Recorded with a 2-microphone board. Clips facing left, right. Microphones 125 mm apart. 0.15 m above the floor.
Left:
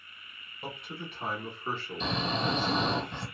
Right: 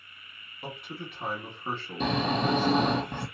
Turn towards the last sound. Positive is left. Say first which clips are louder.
# right 5 dB
turn(degrees=-55)  # may be behind; listen again after turning